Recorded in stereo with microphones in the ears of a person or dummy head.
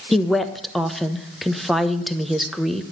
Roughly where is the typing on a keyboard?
No typing on a keyboard in this recording.